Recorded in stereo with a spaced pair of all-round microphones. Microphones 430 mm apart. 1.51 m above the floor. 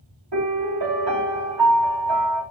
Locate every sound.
0.3 s a piano: 65° right (ahead or behind), 3 m